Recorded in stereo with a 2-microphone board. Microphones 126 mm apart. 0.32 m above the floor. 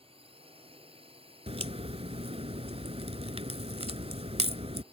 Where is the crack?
55° right (ahead or behind).